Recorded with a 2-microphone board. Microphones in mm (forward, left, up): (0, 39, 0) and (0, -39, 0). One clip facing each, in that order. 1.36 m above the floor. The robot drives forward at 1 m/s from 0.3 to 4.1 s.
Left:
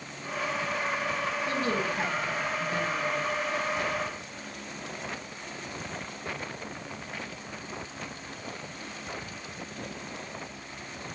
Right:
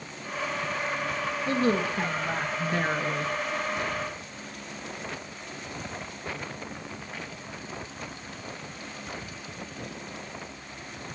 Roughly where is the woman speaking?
Right.